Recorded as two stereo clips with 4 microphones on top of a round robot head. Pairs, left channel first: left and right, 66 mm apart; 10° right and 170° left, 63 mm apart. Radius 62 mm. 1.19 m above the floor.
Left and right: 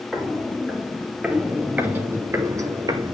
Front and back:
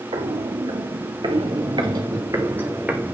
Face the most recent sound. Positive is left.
turn(degrees=-105)